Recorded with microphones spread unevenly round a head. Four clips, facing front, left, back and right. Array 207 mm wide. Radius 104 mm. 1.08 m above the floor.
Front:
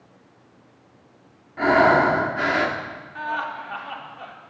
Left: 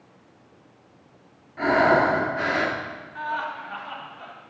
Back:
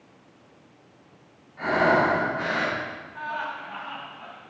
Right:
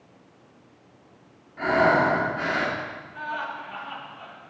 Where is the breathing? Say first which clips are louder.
Left 1 dB, front 5 dB; 20° left, 2 m.